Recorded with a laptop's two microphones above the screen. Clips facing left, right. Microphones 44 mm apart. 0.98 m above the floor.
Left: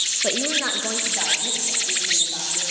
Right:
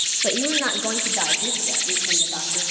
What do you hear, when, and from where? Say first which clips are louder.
0.2 s a woman speaking: right 2 dB; 5° left (ahead or behind), 0.9 m; by 2.6 s 20° right (ahead or behind), 3.5 m